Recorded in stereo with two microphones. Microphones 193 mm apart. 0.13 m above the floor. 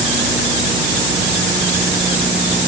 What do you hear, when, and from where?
Only background noise.